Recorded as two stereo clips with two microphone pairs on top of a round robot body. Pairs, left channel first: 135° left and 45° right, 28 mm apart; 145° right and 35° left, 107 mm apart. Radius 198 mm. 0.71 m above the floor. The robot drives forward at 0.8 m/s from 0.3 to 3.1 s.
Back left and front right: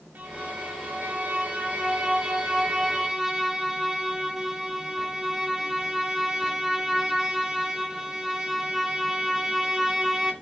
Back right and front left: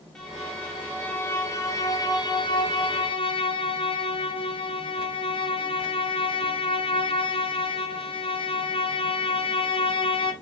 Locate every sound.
0.1 s a violin: 60° right, 2.5 m; by 10.3 s 110° right, 2.5 m